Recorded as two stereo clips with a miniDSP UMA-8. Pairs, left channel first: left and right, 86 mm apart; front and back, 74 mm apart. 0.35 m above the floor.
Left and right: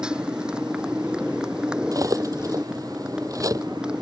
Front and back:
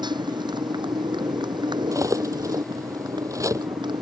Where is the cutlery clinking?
135° right.